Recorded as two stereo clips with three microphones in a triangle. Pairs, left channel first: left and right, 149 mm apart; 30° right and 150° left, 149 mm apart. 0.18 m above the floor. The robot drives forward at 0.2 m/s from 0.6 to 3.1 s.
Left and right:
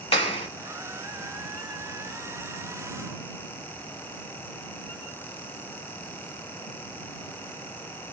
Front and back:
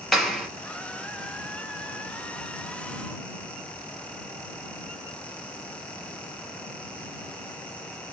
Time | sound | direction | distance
0.1 | a clap | 60° left | 1.2 m